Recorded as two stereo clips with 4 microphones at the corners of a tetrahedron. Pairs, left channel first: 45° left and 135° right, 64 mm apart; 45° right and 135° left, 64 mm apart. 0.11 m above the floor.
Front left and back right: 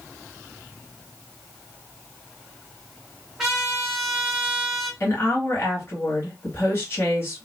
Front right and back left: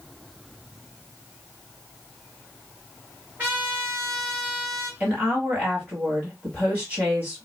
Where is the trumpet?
145° left, 1.8 m.